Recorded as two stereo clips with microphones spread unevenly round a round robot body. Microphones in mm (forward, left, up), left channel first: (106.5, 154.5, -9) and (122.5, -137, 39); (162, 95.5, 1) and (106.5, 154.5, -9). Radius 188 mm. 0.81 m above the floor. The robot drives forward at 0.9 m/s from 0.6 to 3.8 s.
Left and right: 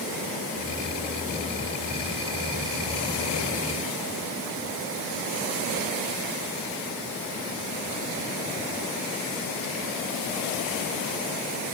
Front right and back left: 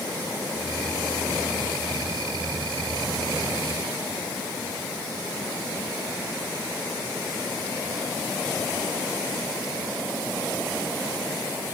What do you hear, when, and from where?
Only background noise.